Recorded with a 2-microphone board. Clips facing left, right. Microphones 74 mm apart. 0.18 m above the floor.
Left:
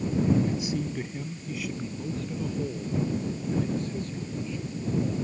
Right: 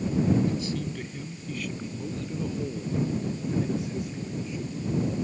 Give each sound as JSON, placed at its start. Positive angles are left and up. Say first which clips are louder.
{"t": 0.5, "sound": "a man speaking", "louder": "even", "side_deg": 20}